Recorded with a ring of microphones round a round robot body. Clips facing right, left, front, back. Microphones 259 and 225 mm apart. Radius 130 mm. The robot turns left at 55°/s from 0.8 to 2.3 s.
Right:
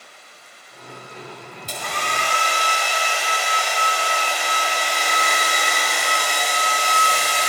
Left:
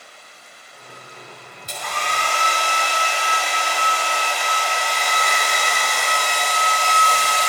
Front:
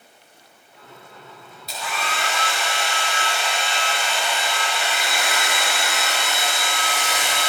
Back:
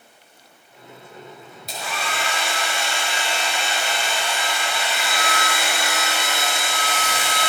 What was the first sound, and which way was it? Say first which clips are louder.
A hair dryer: even, even; 125° right.